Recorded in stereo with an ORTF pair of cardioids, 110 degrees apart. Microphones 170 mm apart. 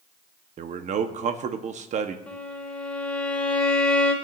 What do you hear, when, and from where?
0.6 s a man speaking: 45° right, 1.2 m
2.3 s a violin: 5° left, 2.5 m